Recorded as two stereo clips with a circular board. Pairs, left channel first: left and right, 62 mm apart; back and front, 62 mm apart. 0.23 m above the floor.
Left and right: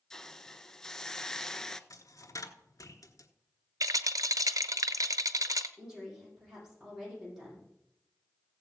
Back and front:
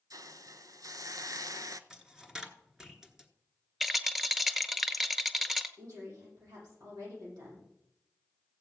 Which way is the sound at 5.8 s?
10° right.